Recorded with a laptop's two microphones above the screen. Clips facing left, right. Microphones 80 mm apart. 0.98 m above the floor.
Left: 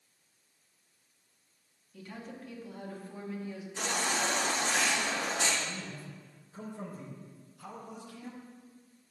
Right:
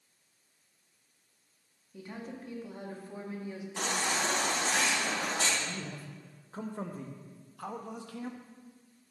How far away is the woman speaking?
About 1.2 m.